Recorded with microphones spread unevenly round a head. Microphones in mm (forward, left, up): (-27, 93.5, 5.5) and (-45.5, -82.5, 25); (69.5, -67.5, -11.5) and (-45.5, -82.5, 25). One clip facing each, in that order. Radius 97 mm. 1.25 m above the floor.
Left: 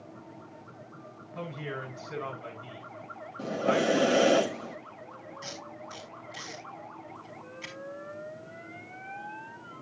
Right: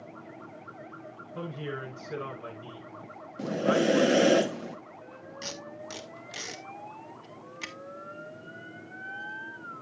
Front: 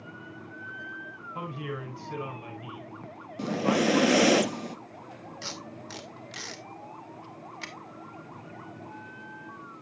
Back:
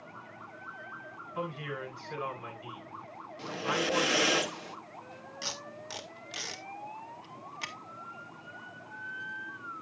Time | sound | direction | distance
1.4 | a woman speaking | 40° right | 8.5 m
3.4 | breathing | 40° right | 0.8 m
5.4 | tape being pulled | 90° right | 1.9 m